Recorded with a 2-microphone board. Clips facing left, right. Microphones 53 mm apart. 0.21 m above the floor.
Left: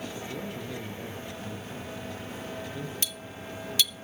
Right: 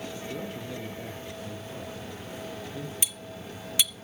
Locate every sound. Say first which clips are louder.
0.3 s a man speaking: even; centre (ahead or behind), 5 m
3.0 s cutlery clinking: even; 20° right (ahead or behind), 0.5 m